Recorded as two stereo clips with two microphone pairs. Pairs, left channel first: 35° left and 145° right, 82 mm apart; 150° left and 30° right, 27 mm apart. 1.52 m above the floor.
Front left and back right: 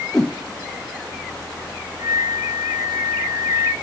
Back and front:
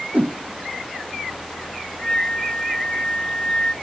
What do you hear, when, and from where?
0.1 s a whoosh: 50° right, 0.8 m
2.0 s a flute: 175° left, 1.8 m